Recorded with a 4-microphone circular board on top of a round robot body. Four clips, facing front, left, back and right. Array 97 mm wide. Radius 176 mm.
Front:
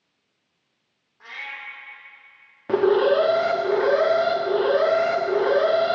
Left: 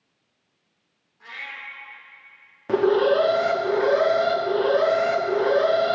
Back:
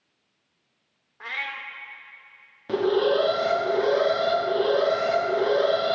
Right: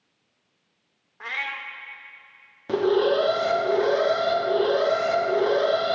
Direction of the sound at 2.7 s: 25° left.